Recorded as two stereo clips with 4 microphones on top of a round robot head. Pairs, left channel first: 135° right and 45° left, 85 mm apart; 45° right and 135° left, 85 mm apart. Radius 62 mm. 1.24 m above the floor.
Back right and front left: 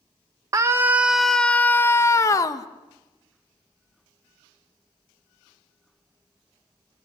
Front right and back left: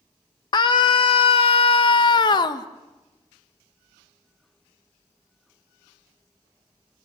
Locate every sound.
0.5 s a scream: 5° right, 0.9 m; by 2.7 s 85° right, 1.6 m